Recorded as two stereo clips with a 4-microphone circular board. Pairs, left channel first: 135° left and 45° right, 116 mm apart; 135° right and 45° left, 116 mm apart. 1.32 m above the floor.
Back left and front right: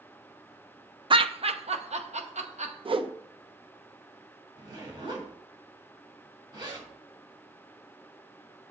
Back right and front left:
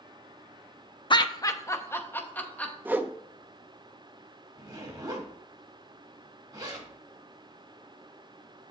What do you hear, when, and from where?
1.1 s laughter: 90° right, 0.5 m; by 2.8 s 55° right, 1.4 m
2.9 s a whoosh: 25° right, 0.6 m
4.6 s a zipper: 5° right, 2 m